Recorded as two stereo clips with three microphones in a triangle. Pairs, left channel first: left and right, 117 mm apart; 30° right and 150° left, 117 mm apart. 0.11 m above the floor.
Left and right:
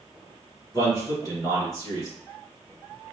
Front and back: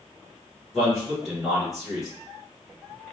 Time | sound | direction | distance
0.7 | a man speaking | 65° left | 1.9 m